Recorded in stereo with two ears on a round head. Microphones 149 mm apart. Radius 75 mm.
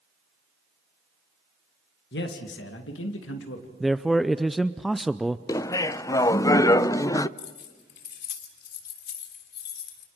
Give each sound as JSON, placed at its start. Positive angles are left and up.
{"t": 2.1, "sound": "a man speaking", "side_deg": 65, "distance_m": 2.0}
{"t": 3.8, "sound": "a man speaking", "side_deg": 0, "distance_m": 0.5}
{"t": 5.5, "sound": "laughter", "side_deg": 20, "distance_m": 0.6}
{"t": 7.4, "sound": "keys jangling", "side_deg": 70, "distance_m": 3.0}